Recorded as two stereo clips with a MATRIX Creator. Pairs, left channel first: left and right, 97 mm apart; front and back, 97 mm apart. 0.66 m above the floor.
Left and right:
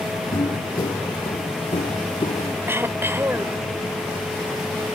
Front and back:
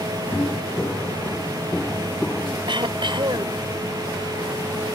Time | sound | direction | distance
0.3 | footsteps | 65° left | ?
2.7 | throat clearing | 155° right | ?